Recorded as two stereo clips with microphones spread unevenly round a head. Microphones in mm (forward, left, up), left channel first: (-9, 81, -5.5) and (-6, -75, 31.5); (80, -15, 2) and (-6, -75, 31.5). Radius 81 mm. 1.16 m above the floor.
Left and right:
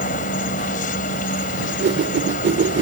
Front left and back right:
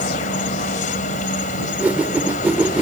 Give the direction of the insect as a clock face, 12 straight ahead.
11 o'clock.